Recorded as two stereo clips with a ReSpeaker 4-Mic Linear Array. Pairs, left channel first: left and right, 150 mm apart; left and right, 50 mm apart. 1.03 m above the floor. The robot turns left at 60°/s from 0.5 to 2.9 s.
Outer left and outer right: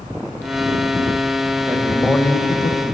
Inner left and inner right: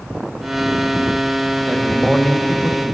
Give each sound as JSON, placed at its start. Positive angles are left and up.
{"t": 1.7, "sound": "a man speaking", "azimuth_deg": -160, "distance_m": 0.5}